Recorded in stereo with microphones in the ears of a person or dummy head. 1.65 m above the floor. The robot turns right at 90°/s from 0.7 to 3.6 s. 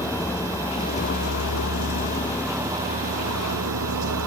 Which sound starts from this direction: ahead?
A vehicle, at 0.0 s.